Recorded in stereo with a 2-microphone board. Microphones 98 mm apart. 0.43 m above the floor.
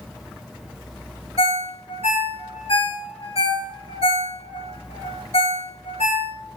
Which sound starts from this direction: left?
A ringtone, at 1.4 s.